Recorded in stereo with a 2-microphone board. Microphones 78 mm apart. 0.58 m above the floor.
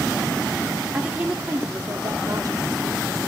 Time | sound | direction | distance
0.9 | a woman speaking | 15° right (ahead or behind) | 1.6 m